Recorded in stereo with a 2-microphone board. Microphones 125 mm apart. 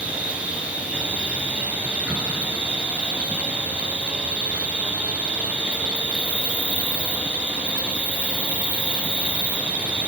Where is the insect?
10° right (ahead or behind), 0.9 m.